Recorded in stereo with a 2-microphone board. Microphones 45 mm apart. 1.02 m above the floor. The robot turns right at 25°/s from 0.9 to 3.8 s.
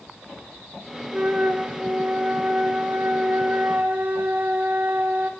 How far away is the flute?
About 0.8 m.